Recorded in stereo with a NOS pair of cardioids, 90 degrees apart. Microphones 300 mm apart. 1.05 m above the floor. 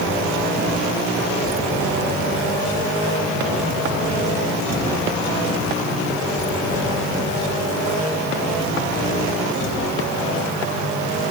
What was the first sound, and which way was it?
Only background noise.